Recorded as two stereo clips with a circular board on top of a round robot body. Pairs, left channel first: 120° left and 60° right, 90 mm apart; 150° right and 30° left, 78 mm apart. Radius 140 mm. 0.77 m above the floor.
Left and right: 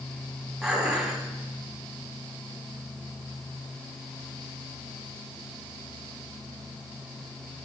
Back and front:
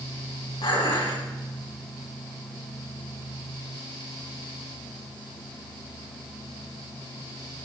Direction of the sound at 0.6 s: 150° right.